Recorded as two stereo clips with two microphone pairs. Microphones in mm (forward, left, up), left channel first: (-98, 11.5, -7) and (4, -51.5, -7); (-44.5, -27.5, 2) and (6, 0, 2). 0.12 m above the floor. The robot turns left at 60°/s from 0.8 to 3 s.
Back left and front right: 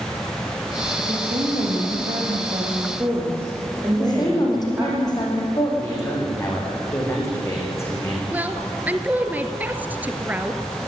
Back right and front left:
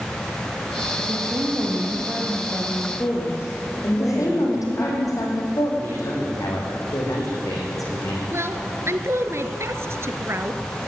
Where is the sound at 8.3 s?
40° left, 1.6 m.